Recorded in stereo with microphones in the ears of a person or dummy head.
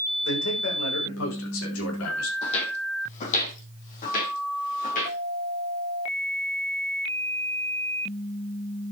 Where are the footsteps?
35° left (ahead or behind), 3.5 m; by 5.2 s 50° left (ahead or behind), 5.5 m.